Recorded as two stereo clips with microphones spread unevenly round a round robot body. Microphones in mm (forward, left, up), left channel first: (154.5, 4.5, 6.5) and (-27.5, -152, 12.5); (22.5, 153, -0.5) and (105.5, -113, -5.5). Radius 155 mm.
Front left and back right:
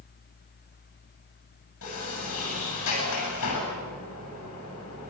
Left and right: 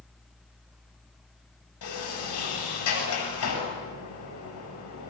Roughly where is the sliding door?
Left.